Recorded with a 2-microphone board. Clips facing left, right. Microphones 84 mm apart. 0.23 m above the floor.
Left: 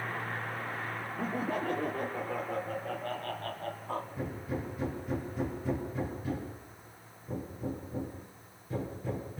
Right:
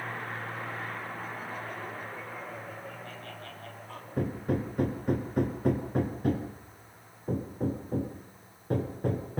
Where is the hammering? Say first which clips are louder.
Right 6 dB; 55° right (ahead or behind), 3.5 m.